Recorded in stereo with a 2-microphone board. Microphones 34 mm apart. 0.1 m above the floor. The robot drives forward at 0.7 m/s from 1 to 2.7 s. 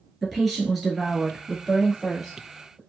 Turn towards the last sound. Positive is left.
turn(degrees=0)  # may be behind; listen again after turning